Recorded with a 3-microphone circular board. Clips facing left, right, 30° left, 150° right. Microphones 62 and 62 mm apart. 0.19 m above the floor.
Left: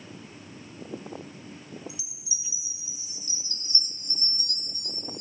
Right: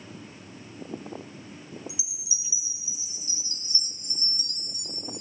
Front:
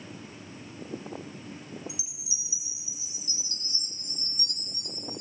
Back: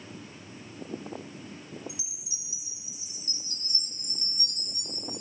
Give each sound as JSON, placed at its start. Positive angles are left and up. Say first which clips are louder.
{"t": 1.9, "sound": "a chime", "louder": "right 1 dB, front 2 dB", "azimuth_deg": -165, "distance_m": 3.0}